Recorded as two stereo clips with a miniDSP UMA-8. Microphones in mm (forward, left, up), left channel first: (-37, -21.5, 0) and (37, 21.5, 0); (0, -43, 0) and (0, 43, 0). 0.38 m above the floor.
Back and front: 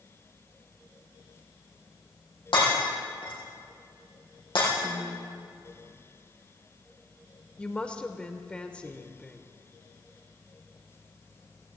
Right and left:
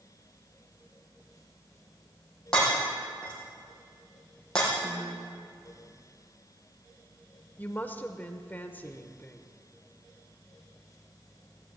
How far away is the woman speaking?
About 0.9 m.